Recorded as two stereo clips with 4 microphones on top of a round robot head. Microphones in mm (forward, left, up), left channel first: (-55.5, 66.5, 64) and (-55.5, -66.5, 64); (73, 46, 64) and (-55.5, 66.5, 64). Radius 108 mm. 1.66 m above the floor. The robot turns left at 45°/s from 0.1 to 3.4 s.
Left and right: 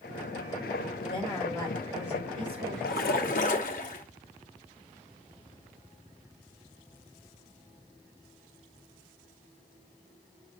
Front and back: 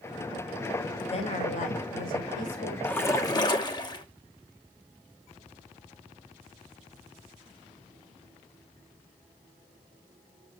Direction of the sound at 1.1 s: 35° left.